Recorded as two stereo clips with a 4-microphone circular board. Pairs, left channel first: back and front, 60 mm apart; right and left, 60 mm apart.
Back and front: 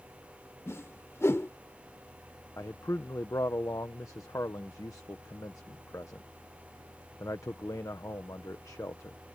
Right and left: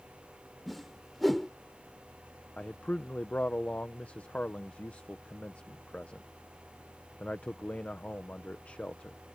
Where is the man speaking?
155° right.